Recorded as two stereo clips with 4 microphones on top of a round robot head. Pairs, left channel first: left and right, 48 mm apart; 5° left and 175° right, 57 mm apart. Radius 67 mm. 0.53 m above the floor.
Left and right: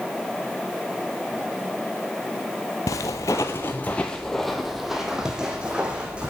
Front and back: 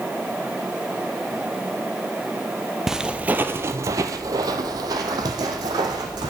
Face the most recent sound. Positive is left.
turn(degrees=-165)